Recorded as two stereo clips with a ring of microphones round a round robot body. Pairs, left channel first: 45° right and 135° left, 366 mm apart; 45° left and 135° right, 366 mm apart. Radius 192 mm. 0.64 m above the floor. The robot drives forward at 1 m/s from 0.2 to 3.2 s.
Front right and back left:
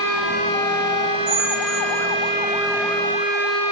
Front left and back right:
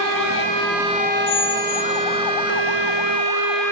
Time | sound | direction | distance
1.3 | a squeak | 85° left | 2.5 m